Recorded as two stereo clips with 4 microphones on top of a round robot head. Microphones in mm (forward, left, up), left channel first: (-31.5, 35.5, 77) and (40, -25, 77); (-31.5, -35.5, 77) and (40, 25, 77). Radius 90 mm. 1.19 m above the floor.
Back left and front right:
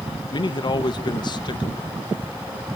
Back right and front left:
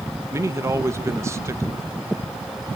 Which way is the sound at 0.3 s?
100° left.